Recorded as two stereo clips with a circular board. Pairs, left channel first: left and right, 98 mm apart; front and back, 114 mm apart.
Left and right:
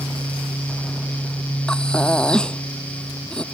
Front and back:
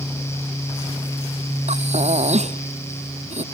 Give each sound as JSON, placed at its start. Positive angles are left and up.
{"t": 1.7, "sound": "breathing", "azimuth_deg": 170}